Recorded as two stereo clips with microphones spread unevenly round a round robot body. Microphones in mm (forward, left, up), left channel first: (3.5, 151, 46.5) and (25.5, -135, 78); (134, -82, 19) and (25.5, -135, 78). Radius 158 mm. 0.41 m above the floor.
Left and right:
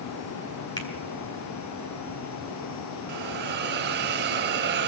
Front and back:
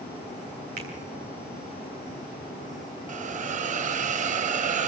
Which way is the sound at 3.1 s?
145° right.